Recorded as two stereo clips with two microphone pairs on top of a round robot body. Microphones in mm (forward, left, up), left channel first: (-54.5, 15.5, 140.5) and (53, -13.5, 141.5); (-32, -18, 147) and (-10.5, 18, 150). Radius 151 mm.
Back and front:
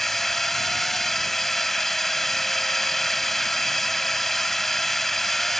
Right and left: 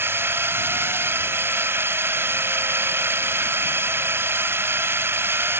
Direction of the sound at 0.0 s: 75° left.